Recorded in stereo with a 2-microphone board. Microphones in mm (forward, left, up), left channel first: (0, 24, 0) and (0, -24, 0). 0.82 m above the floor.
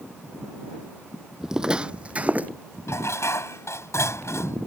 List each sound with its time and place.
1.4 s footsteps: 10° right (ahead or behind); by 2.5 s 35° right (ahead or behind)
2.9 s dishes clattering: 75° left (ahead or behind)